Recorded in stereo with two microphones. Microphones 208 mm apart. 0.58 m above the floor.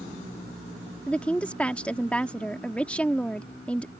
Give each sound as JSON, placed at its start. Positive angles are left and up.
{"t": 1.1, "sound": "a woman speaking", "side_deg": 5}